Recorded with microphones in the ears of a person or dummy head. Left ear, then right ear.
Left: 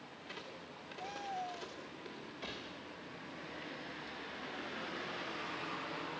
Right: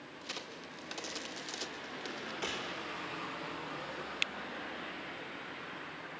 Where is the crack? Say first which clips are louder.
Right 6 dB; 85° right, 2.5 m.